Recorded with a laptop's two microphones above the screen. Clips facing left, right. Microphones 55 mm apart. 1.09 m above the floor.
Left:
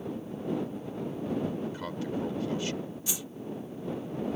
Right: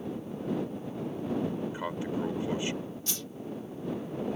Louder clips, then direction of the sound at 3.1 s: Left 1 dB; 10° left (ahead or behind).